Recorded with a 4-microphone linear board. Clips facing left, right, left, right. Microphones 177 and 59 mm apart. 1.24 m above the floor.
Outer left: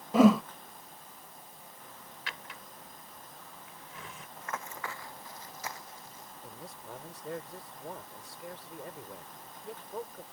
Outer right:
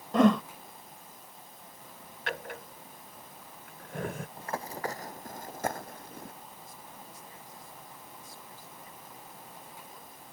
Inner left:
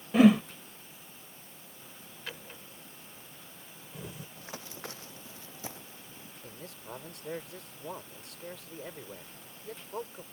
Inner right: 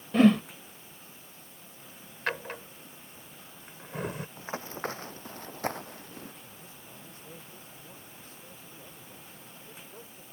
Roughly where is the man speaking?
Left.